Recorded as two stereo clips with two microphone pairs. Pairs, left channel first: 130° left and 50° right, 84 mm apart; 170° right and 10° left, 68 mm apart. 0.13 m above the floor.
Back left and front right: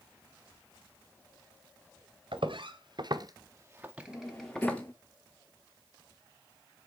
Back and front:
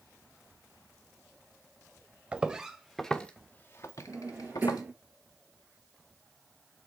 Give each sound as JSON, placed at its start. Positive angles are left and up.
{"t": 2.3, "sound": "footsteps", "azimuth_deg": -55, "distance_m": 1.4}
{"t": 4.1, "sound": "a drawer", "azimuth_deg": 70, "distance_m": 0.8}